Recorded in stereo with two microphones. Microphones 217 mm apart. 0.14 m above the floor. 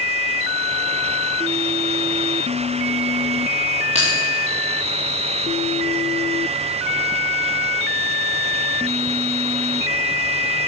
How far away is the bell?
About 5.5 m.